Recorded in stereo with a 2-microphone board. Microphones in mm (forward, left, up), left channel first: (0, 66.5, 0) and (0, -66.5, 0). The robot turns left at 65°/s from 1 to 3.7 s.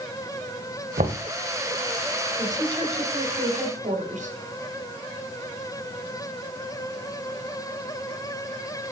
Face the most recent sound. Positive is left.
turn(degrees=-105)